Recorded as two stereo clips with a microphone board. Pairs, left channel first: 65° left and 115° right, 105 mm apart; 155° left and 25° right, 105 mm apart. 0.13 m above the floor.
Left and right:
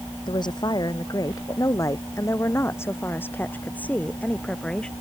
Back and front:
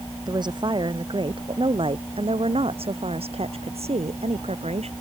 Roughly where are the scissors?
I don't hear scissors.